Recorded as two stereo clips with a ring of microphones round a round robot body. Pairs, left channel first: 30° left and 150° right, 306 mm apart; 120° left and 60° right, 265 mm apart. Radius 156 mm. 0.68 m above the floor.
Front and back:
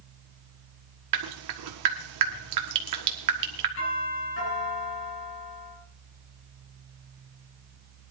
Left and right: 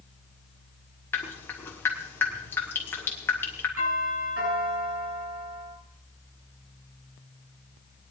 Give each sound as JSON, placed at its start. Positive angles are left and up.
{"t": 1.1, "sound": "dripping", "azimuth_deg": -160, "distance_m": 1.5}
{"t": 3.8, "sound": "a doorbell", "azimuth_deg": -20, "distance_m": 6.5}